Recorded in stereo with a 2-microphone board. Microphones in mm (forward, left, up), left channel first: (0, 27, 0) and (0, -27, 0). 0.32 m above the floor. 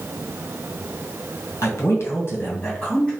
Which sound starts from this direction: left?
A man speaking, at 1.6 s.